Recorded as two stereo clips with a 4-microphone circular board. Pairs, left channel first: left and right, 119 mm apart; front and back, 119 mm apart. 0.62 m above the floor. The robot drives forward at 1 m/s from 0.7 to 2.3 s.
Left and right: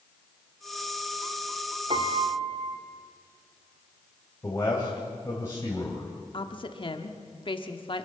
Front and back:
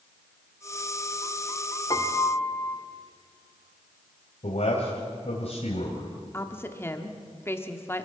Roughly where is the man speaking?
Ahead left.